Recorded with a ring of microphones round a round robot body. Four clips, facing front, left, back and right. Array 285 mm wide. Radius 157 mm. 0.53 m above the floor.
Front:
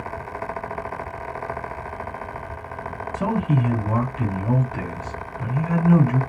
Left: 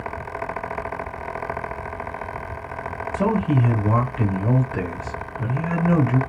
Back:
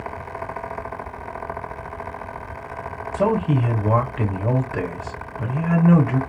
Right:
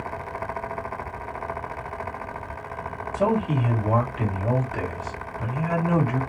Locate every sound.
3.1 s a man speaking: 160° left, 2.5 m